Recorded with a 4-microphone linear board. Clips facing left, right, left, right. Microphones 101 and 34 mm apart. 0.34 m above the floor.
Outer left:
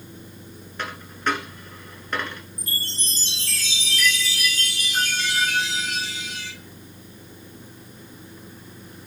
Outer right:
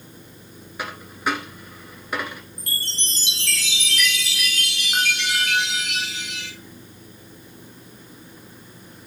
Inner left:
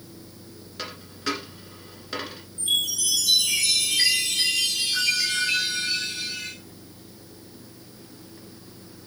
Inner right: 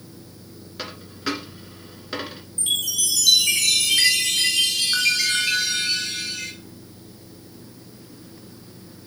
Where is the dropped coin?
10° right (ahead or behind), 1.4 m.